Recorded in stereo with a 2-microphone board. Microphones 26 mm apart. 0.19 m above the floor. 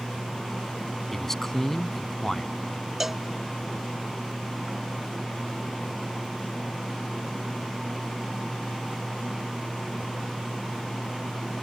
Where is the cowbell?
15° right (ahead or behind).